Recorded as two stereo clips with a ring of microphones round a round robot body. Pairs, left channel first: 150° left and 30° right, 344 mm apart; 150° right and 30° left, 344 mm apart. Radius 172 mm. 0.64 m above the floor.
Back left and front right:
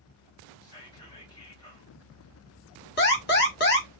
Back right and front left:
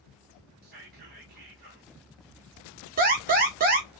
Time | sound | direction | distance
0.6 | whispering | 80° left | 0.9 m
3.0 | an alarm | 95° left | 1.3 m